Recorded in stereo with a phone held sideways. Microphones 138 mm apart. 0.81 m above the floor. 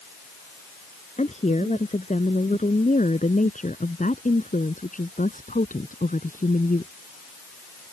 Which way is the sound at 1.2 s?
55° left (ahead or behind).